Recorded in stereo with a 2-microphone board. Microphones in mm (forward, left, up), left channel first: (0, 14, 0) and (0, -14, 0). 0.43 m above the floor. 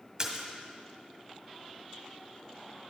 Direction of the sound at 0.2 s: 25° right (ahead or behind).